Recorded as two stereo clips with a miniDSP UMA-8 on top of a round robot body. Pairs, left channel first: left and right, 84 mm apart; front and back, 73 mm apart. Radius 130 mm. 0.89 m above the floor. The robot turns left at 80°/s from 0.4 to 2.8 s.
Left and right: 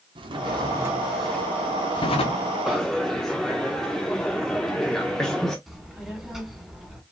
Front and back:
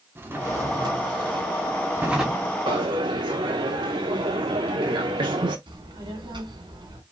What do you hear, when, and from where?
0.1 s a drawer: 120° right, 0.8 m; by 2.6 s 70° left, 0.8 m
2.7 s a dropped coin: 175° right, 0.6 m; by 5.6 s 175° left, 0.6 m
5.7 s a child speaking: straight behind, 2.5 m